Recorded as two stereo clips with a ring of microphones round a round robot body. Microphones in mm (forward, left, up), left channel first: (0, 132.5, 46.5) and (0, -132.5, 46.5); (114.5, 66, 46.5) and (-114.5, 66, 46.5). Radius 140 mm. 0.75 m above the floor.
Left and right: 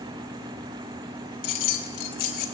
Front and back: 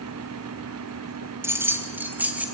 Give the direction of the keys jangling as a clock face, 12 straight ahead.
9 o'clock.